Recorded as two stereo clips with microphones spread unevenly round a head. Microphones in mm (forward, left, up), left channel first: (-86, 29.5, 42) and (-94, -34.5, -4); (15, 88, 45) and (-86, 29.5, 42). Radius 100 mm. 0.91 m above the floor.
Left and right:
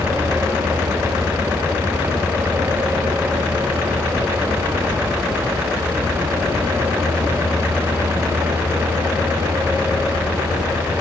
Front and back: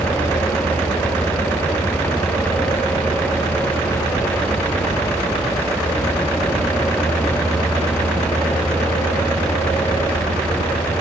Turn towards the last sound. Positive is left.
No sound to turn to.